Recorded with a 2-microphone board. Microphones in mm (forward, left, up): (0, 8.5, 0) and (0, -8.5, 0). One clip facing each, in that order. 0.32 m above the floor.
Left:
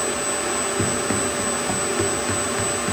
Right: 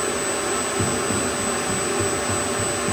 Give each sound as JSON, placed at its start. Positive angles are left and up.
{"t": 0.8, "sound": "running footsteps", "side_deg": 45, "distance_m": 4.5}